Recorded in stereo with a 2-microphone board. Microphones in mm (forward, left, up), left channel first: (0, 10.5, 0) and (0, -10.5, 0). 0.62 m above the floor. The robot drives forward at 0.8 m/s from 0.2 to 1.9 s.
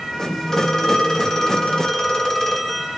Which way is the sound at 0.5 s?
25° left (ahead or behind).